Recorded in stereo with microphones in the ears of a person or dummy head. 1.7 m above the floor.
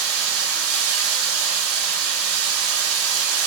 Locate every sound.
0.0 s running water: 75° right (ahead or behind), 3.5 m